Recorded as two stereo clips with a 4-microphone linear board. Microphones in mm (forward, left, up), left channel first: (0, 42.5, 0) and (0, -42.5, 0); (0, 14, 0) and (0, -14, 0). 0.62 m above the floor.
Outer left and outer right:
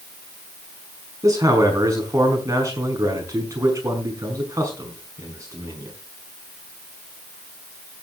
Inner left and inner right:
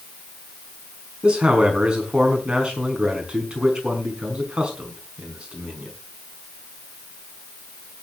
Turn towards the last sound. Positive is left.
turn(degrees=-40)  # may be behind; listen again after turning